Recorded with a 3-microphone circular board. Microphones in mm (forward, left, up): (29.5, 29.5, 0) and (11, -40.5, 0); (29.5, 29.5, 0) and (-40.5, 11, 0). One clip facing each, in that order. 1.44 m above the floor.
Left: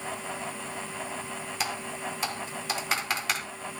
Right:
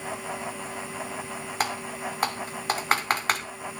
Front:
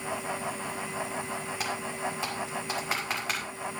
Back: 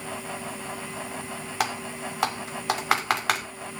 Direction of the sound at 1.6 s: 145° right.